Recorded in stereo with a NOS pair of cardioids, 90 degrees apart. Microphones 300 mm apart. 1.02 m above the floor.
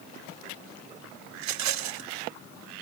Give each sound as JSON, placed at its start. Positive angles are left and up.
{"t": 1.4, "sound": "a rattle", "azimuth_deg": -65, "distance_m": 0.9}